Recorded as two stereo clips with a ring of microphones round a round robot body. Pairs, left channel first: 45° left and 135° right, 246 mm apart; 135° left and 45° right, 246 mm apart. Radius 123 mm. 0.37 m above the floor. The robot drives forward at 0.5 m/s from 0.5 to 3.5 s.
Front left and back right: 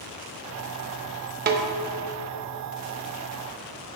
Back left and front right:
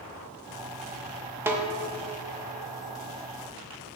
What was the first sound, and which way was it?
A snare drum, 120° right.